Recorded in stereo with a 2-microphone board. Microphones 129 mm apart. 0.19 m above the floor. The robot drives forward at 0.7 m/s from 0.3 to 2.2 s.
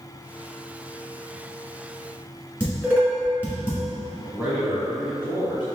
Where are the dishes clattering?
15° right (ahead or behind), 1.7 m.